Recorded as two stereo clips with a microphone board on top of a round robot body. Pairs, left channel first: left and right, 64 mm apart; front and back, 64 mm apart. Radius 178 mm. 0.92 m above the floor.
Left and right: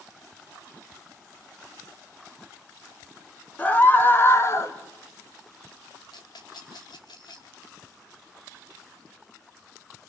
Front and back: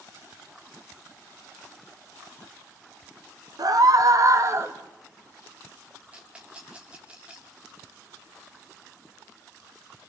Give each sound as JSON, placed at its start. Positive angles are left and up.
{"t": 3.6, "sound": "a scream", "azimuth_deg": 160, "distance_m": 2.5}
{"t": 6.1, "sound": "a rattle", "azimuth_deg": 105, "distance_m": 0.6}